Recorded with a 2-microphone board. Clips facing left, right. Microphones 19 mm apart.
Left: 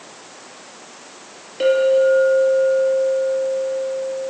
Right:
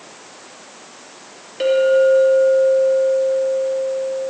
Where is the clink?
10° right (ahead or behind), 3 m.